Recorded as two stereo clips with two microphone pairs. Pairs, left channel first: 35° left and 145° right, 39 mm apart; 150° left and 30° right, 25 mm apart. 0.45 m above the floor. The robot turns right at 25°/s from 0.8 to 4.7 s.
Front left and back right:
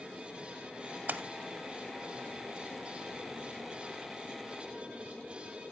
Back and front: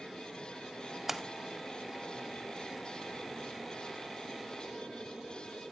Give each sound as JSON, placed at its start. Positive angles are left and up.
{"t": 1.1, "sound": "a splash", "azimuth_deg": -110, "distance_m": 0.5}